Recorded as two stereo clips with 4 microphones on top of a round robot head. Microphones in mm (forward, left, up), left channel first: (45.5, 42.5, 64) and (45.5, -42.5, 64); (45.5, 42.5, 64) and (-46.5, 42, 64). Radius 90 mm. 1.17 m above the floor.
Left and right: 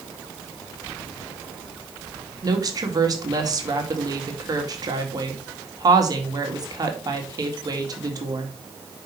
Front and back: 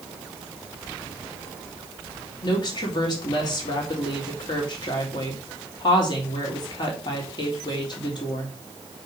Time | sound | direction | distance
2.4 | a woman speaking | 45° right | 2 m